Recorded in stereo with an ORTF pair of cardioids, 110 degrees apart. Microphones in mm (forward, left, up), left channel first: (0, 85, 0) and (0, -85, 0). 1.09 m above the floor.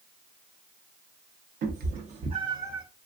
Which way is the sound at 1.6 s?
65° right.